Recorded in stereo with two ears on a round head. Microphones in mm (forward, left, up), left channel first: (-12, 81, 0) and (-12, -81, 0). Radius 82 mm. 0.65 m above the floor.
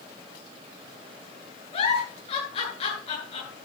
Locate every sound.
1.7 s a giggle: 35° left (ahead or behind), 10 m